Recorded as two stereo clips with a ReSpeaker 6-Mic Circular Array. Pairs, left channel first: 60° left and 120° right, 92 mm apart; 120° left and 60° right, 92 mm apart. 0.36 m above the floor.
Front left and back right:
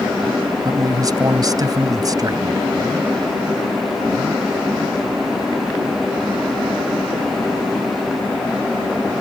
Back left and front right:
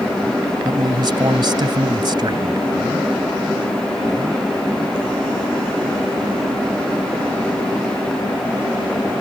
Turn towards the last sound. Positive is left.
turn(degrees=-85)